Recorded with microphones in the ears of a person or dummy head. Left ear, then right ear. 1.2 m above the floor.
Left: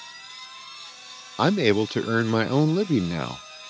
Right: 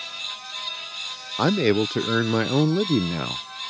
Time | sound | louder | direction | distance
1.4 | a man speaking | even | 10° left (ahead or behind) | ?